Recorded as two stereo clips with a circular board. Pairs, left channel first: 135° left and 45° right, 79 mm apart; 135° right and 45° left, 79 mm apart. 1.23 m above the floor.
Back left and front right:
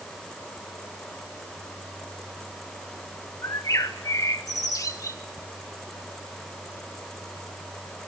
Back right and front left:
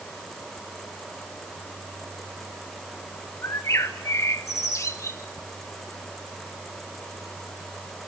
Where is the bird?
175° left, 1.9 m.